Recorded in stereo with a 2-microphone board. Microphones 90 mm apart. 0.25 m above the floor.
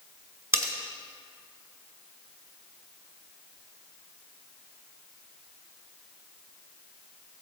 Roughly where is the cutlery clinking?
Right.